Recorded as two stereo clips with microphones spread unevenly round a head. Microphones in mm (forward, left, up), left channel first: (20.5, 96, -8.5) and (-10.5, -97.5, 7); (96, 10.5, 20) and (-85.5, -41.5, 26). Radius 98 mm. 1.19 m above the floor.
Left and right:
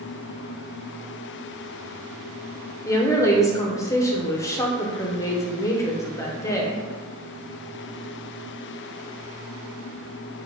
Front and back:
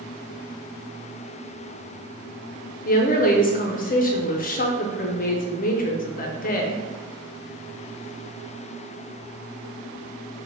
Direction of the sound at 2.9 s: 15° left.